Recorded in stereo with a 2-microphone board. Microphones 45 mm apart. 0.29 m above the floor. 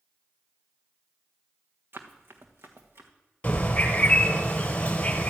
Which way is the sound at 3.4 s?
30° left (ahead or behind).